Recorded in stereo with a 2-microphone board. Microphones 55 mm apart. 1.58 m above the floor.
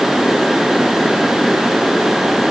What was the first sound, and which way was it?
Only background noise.